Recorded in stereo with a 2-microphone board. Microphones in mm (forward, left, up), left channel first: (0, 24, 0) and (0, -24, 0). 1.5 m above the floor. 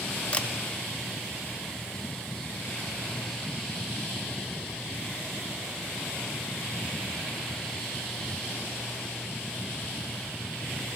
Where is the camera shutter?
25° left (ahead or behind), 0.5 m.